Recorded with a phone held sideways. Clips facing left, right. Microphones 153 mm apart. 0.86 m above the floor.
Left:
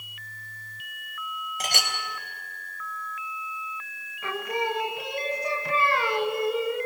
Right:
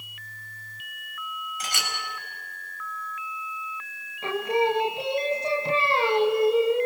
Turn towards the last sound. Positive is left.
turn(degrees=-25)  # may be behind; listen again after turning